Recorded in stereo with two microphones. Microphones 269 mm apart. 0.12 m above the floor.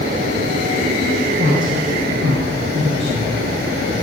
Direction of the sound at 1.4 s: 30° right (ahead or behind).